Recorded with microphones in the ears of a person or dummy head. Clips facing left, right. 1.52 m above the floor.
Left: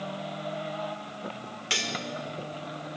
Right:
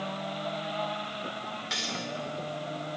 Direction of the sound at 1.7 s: 45° left (ahead or behind).